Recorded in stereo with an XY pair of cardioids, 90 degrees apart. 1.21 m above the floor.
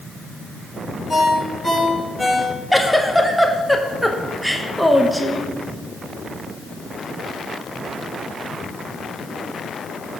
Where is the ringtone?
10° right, 3 m.